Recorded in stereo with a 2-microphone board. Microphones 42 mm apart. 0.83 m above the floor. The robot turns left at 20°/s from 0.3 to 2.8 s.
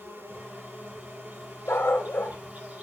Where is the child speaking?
I don't hear a child speaking.